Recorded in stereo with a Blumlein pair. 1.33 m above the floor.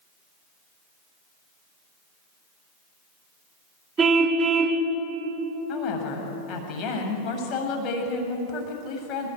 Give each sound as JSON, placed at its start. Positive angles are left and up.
{"t": 4.0, "sound": "a car horn", "azimuth_deg": -20, "distance_m": 3.0}
{"t": 5.7, "sound": "a woman speaking", "azimuth_deg": 35, "distance_m": 7.0}